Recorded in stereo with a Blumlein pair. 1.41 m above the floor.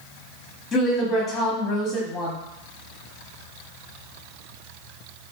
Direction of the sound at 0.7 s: 15° left.